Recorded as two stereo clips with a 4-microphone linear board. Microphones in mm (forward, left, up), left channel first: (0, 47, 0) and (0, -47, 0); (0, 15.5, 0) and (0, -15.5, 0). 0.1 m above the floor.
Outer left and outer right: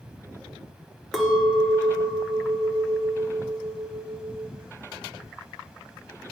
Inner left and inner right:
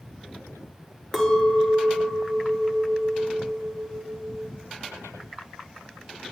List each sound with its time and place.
1.1 s a clink: centre (ahead or behind), 0.7 m